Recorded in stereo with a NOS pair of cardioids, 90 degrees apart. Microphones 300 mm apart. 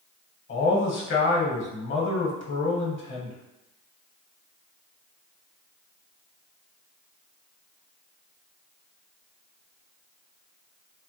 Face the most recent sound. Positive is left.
turn(degrees=40)